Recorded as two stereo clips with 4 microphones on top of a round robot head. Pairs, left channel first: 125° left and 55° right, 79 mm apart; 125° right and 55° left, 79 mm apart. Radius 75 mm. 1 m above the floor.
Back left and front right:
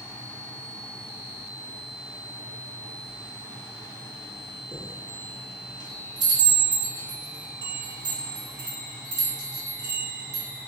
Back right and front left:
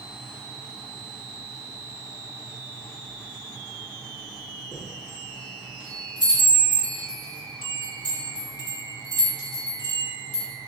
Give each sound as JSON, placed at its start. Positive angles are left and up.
{"t": 4.7, "sound": "a chime", "azimuth_deg": -90, "distance_m": 1.9}